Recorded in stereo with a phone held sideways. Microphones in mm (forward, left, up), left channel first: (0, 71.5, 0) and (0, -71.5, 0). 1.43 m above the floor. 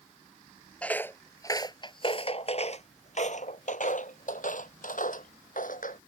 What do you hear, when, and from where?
0.8 s footsteps: 10° left (ahead or behind); by 6.0 s 70° left (ahead or behind)